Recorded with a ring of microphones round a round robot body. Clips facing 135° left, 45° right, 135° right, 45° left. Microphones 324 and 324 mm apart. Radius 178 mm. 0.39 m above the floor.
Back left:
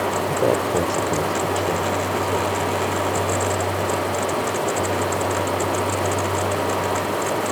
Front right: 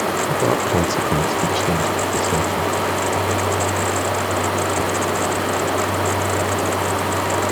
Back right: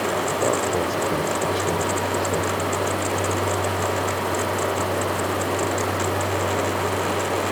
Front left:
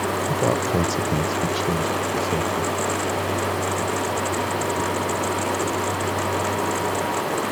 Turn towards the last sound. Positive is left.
turn(degrees=-25)